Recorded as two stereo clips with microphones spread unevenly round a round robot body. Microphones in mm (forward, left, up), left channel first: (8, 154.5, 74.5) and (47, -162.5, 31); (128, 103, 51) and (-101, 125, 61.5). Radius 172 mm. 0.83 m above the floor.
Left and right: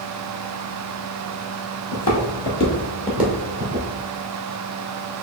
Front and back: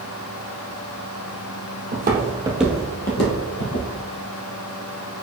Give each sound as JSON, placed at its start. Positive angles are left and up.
{"t": 1.9, "sound": "footsteps", "azimuth_deg": 140, "distance_m": 1.5}